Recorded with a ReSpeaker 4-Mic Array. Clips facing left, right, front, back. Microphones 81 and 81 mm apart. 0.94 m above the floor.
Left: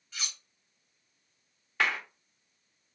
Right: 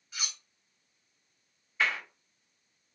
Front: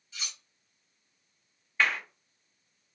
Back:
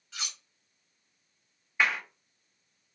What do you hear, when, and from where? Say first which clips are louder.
0.1 s cutlery clinking: right 1 dB, back 3 dB; 170° right, 1.5 m
1.8 s a clap: left 1 dB, even; 105° left, 1.0 m